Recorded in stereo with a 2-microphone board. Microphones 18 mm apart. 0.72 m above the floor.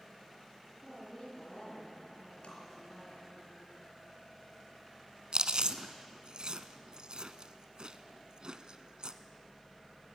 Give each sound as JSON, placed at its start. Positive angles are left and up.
{"t": 0.8, "sound": "a woman speaking", "side_deg": 30, "distance_m": 7.5}
{"t": 2.4, "sound": "tapping", "side_deg": 70, "distance_m": 5.0}
{"t": 5.3, "sound": "chewing", "side_deg": -55, "distance_m": 1.0}